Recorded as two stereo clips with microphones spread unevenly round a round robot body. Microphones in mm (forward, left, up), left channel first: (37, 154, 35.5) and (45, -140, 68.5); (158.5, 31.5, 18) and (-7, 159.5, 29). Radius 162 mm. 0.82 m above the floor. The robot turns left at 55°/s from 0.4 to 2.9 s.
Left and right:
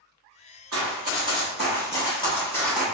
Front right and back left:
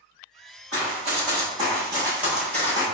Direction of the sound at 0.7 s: 115° right.